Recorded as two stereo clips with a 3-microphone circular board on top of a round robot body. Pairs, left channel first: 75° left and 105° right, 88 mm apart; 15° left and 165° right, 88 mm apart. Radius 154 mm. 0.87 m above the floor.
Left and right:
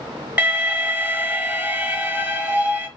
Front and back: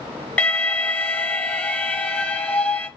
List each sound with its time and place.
0.4 s an alarm: 50° right, 1.4 m